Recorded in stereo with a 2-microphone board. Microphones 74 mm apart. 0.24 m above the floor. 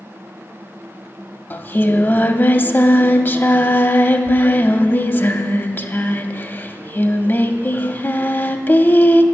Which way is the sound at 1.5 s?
30° left (ahead or behind).